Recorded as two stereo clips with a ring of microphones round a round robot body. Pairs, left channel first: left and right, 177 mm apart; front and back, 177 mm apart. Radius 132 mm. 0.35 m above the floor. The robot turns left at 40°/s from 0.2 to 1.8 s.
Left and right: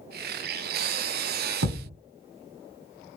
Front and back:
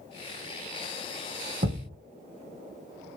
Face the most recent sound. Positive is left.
turn(degrees=-125)